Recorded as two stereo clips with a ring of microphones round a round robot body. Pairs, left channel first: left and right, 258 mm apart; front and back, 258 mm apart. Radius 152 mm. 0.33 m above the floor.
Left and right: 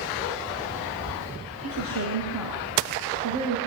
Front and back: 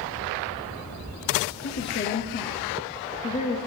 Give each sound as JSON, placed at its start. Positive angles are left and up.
{"t": 1.6, "sound": "a woman speaking", "azimuth_deg": -45, "distance_m": 5.5}